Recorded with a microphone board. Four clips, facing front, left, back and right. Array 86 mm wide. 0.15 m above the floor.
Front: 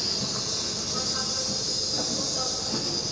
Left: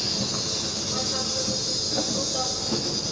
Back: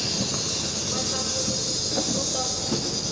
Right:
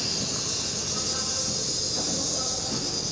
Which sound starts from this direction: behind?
An insect, at 0.0 s.